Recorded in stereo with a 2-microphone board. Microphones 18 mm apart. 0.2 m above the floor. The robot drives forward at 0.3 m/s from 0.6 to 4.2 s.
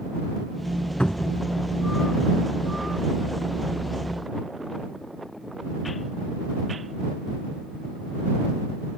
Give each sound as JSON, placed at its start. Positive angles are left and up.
{"t": 1.0, "sound": "a cupboard door", "side_deg": 65, "distance_m": 0.7}